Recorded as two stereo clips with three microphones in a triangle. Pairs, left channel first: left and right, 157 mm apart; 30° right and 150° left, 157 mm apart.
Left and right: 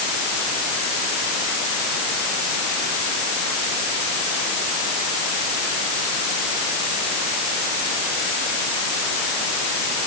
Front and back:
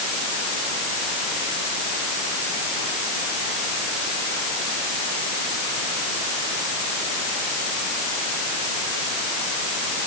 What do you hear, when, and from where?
Only background noise.